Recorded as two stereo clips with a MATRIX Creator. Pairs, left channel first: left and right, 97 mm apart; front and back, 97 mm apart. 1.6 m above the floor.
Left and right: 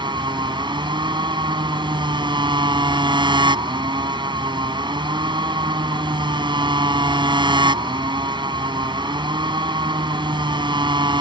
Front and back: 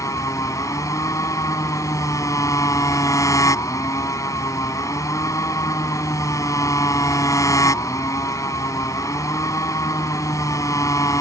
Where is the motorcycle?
55° right.